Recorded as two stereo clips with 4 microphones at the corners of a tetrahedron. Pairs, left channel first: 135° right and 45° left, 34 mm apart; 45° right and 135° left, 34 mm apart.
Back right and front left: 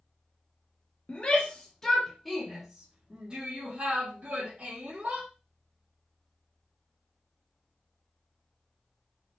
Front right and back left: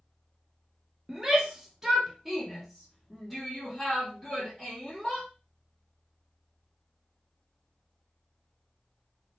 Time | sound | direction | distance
1.1 | a shout | 160° right | 1.1 m